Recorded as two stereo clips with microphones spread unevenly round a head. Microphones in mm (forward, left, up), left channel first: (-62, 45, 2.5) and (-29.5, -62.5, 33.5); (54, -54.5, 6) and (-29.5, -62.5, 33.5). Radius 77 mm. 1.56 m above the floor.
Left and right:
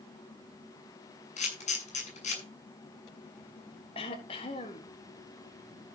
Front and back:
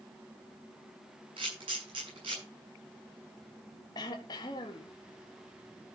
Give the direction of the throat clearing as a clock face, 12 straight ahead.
10 o'clock.